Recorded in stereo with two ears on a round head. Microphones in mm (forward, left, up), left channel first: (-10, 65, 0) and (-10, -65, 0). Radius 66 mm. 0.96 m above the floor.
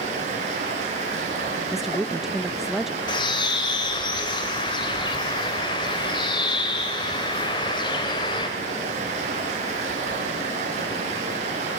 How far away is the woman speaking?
About 0.7 m.